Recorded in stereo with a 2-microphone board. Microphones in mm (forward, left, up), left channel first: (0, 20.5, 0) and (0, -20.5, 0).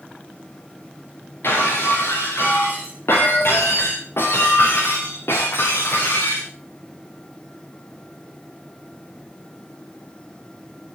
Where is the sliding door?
I don't hear a sliding door.